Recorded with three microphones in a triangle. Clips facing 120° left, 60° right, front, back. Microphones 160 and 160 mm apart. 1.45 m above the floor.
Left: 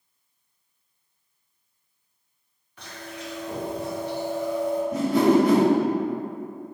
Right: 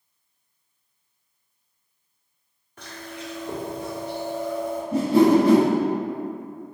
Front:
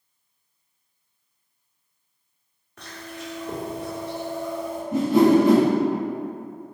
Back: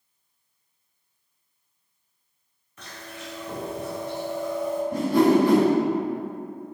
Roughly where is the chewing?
Ahead.